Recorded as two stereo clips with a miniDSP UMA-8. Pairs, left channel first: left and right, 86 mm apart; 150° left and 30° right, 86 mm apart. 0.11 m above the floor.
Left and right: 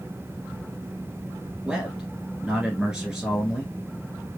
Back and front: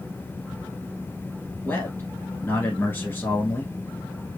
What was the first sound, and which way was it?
A man speaking, 165° right.